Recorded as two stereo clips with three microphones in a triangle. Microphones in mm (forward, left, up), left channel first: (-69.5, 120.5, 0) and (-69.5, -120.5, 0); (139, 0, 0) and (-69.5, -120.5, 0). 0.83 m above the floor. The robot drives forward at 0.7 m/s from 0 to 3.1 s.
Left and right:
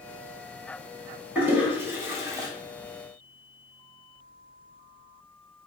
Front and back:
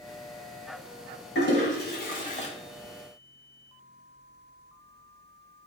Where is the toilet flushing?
10° right, 1.4 m; by 2.5 s 25° right, 0.7 m.